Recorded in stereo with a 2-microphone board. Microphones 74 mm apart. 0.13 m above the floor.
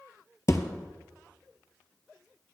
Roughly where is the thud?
Left.